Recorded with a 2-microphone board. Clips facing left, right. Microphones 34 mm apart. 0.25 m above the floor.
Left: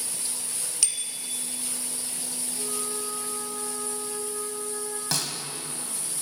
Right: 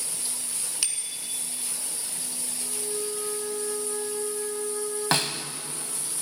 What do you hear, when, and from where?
0.8 s a bicycle bell: 15° right (ahead or behind), 2 m
2.6 s a flute: 70° left (ahead or behind), 6 m
5.1 s a snare drum: 40° right (ahead or behind), 0.7 m